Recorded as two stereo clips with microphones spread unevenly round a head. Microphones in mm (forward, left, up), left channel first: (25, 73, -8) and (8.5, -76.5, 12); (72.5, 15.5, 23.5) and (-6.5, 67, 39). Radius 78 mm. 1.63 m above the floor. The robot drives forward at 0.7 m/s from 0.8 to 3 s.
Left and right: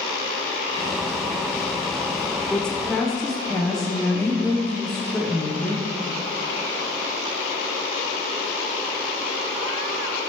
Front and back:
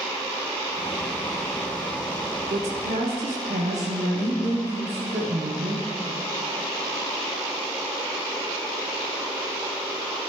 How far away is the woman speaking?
About 0.6 m.